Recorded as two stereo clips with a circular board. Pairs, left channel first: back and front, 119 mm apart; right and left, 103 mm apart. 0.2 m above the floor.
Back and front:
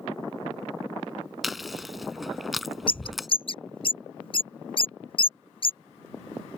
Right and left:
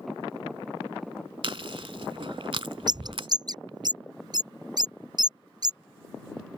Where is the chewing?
90° left.